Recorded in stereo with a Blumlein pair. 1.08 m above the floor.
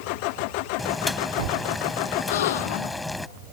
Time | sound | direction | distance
0.8 | boiling | 5° left | ?
2.3 | a gasp | 60° left | ?